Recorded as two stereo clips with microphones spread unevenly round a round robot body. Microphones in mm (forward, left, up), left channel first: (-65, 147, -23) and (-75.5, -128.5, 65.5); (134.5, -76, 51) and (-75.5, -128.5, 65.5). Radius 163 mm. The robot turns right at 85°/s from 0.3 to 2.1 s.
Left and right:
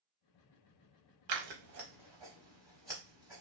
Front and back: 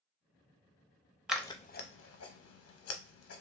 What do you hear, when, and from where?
1.3 s scissors: 80° right, 0.6 m; by 3.4 s 10° right, 0.6 m